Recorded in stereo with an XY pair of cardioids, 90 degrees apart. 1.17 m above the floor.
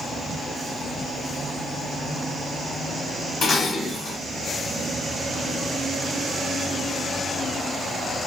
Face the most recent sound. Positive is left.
turn(degrees=60)